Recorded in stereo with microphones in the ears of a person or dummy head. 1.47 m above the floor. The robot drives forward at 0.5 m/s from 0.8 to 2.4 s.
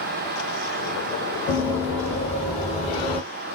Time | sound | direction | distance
1.5 | running footsteps | 25° left (ahead or behind) | 1.9 m